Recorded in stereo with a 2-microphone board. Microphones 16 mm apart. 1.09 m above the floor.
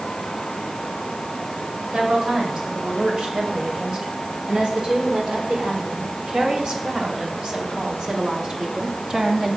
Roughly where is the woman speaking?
Right.